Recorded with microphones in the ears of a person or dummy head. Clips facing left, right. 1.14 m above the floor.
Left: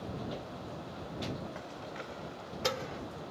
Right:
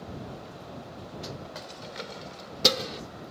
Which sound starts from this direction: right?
Keys jangling, at 1.6 s.